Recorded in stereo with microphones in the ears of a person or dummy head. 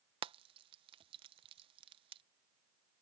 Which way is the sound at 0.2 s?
30° right (ahead or behind).